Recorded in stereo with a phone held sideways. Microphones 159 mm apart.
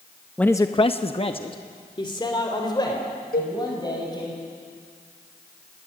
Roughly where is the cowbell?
Left.